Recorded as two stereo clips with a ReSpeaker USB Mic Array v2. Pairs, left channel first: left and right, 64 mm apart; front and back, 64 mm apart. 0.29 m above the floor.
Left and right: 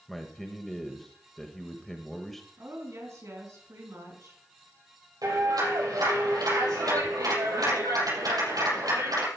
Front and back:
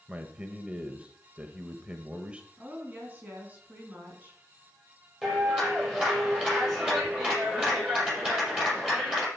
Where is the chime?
No chime in this recording.